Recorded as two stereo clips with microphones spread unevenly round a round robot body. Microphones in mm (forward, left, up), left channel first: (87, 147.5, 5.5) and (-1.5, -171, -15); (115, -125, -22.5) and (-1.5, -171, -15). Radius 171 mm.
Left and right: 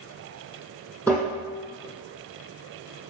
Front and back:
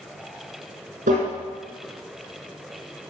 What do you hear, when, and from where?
1.1 s tapping: 160° left, 5.5 m